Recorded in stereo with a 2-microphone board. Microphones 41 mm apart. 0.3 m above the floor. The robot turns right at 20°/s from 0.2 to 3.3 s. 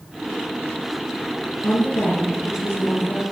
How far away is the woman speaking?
About 5 m.